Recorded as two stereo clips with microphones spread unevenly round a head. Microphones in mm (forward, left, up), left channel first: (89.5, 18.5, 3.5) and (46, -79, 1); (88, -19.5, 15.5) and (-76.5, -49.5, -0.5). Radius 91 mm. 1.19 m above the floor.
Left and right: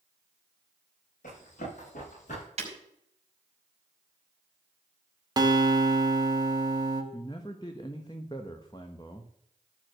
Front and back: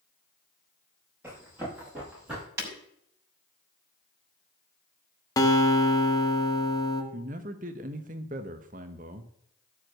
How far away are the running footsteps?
About 7.5 m.